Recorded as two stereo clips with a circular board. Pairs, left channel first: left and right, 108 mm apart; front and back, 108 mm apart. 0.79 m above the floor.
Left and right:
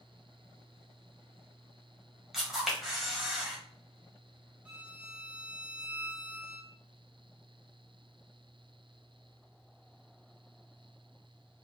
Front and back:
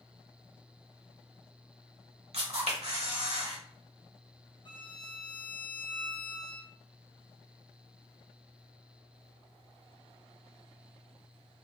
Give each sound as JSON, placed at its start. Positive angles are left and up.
{"t": 2.3, "sound": "a camera shutter", "azimuth_deg": -175, "distance_m": 1.3}
{"t": 4.7, "sound": "a violin", "azimuth_deg": -15, "distance_m": 0.9}